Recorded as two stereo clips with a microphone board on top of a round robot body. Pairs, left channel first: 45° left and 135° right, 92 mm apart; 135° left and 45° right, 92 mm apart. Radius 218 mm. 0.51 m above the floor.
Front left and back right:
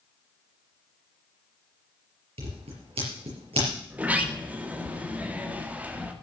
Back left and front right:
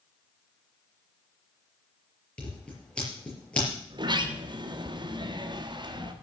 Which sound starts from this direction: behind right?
Scissors, at 2.4 s.